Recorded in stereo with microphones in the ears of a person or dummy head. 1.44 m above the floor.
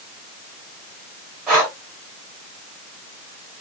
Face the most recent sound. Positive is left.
turn(degrees=-5)  # may be behind; listen again after turning